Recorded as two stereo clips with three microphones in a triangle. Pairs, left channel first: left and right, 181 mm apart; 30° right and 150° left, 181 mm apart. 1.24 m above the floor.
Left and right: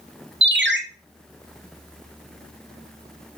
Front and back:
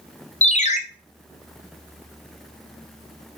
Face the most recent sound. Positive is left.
turn(degrees=-85)